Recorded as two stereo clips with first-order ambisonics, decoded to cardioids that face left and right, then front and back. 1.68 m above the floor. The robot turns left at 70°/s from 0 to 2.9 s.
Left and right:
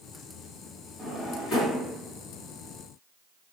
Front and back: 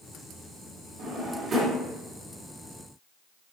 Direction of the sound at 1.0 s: 165° left.